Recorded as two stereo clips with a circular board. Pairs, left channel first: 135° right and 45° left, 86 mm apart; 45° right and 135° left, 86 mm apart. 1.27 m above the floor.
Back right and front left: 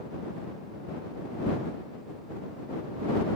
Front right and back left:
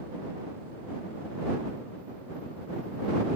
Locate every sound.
Only background noise.